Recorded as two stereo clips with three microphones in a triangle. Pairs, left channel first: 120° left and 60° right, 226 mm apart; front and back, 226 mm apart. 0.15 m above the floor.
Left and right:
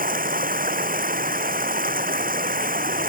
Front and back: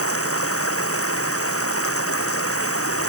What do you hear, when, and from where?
0.0 s running water: 10° right